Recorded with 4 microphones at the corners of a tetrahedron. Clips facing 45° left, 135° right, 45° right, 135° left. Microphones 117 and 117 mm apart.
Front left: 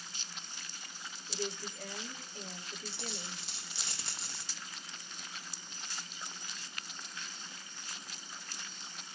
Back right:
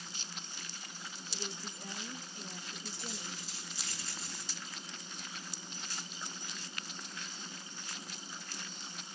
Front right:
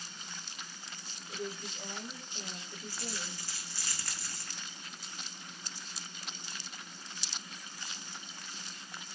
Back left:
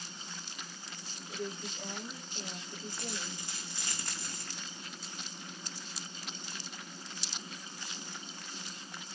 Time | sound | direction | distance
1.3 | a woman speaking | 40° left | 7 m
2.9 | a dropped coin | 65° left | 4.5 m